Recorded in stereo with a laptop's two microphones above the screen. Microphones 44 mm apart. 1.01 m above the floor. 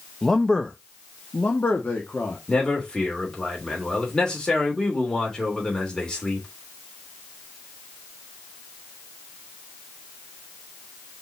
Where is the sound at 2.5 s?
15° left (ahead or behind), 3 m.